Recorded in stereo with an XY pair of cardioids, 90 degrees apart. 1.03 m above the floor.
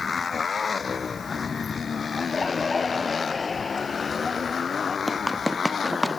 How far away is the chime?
No chime in this recording.